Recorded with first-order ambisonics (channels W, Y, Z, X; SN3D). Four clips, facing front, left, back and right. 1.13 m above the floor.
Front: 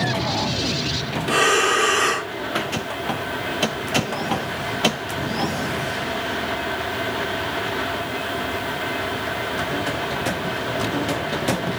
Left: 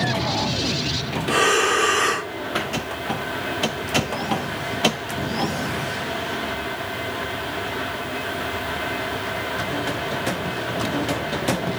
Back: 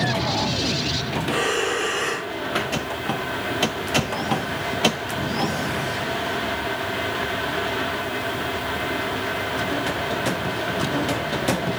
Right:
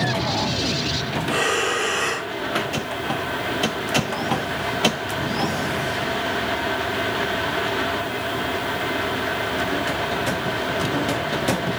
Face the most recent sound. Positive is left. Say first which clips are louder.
# left 4 dB, front 6 dB
turn(degrees=45)